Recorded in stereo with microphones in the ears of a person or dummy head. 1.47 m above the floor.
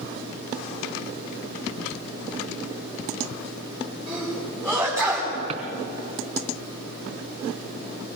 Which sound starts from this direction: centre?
A sneeze, at 4.1 s.